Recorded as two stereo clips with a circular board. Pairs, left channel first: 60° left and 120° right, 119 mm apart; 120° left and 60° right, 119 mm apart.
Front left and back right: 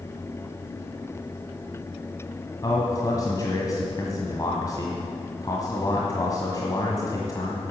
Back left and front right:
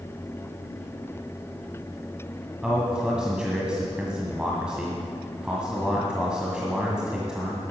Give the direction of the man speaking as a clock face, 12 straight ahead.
11 o'clock.